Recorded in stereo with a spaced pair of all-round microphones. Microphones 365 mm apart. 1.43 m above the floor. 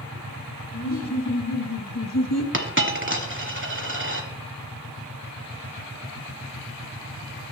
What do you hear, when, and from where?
0.7 s laughter: 50° left (ahead or behind), 3.5 m; by 2.4 s 45° left (ahead or behind), 1.6 m
2.5 s a dropped coin: 30° right (ahead or behind), 1.6 m